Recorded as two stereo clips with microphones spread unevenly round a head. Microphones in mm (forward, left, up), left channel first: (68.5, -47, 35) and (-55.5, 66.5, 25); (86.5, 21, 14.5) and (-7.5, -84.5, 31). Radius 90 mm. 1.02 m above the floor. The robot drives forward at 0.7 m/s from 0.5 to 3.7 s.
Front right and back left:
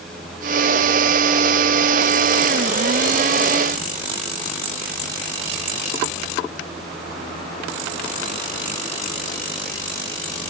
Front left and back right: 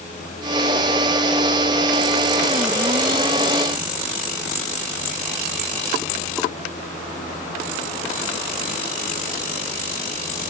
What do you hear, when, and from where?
Only background noise.